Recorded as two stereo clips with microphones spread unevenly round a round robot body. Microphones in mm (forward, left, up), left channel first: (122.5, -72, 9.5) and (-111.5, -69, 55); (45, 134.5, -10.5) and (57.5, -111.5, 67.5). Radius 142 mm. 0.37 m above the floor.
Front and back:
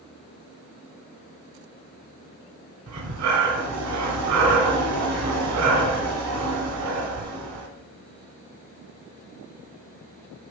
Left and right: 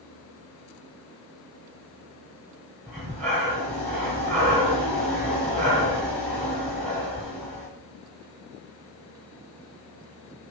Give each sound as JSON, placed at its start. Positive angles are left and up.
{"t": 2.9, "sound": "breathing", "azimuth_deg": 170, "distance_m": 1.6}